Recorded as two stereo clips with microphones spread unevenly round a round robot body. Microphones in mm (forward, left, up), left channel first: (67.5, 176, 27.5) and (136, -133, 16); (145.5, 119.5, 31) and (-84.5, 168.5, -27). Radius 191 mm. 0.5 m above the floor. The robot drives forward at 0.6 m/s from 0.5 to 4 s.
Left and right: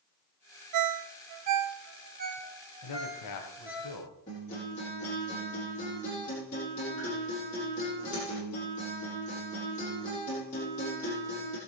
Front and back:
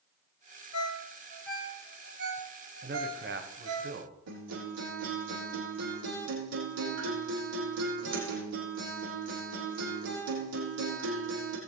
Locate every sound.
0.7 s a ringtone: 55° right, 0.6 m; by 3.8 s 165° right, 1.6 m
2.8 s a man speaking: 130° left, 2 m; by 4.1 s 140° left, 2.5 m
4.3 s a guitar: 175° left, 6.5 m